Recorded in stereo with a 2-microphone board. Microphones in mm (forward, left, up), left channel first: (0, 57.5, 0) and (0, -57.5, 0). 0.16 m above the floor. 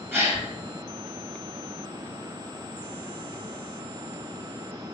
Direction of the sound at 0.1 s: 20° right (ahead or behind).